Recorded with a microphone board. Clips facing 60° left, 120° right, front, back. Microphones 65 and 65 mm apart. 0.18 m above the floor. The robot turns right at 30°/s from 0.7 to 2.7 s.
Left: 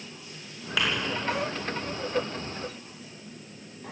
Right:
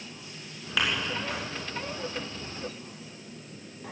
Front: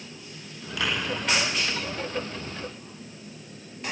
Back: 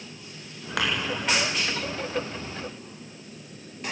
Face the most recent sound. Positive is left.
turn(degrees=-155)